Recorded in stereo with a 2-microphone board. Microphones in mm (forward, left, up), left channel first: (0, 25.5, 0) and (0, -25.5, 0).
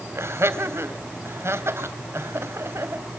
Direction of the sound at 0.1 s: 55° right (ahead or behind).